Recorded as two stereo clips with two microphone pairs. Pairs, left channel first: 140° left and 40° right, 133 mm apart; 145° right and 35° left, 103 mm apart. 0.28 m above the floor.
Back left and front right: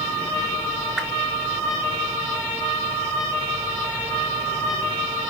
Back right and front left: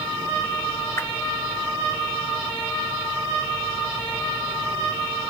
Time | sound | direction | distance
1.0 | a whoosh | 120° right | 0.6 m